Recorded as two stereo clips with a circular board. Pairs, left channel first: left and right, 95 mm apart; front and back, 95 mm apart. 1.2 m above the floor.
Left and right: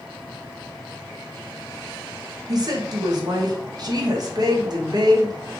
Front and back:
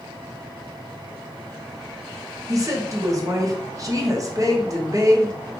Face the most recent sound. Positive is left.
turn(degrees=-130)